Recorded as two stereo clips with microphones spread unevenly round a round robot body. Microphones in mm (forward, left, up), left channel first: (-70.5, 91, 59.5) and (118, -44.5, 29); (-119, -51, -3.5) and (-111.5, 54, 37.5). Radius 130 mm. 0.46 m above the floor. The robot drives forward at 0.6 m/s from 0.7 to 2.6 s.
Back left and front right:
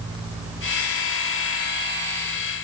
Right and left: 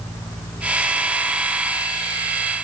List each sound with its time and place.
Only background noise.